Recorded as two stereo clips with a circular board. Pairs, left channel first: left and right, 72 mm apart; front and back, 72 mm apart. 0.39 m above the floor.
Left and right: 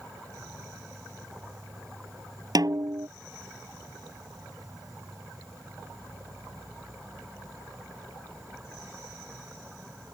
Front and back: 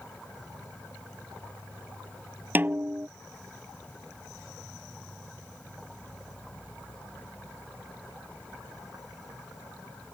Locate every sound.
0.0 s an insect: 70° right
2.5 s a snare drum: 115° right